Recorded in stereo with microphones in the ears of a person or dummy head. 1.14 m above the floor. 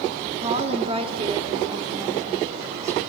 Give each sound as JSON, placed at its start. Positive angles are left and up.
{"t": 0.4, "sound": "a woman speaking", "side_deg": -35, "distance_m": 1.9}